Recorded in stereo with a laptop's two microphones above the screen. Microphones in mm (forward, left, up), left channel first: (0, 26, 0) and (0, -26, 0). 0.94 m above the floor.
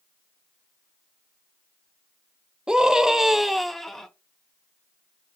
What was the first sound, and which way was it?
A scream, 15° right (ahead or behind).